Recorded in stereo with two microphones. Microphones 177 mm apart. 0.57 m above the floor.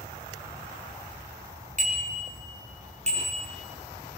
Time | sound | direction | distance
1.8 | a bicycle bell | 40° right (ahead or behind) | 4.5 m